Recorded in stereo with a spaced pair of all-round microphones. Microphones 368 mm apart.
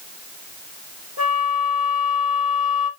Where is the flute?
40° right (ahead or behind), 2.5 m.